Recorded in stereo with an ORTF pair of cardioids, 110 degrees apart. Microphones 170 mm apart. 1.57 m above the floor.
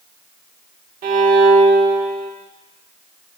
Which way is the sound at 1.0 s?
50° right.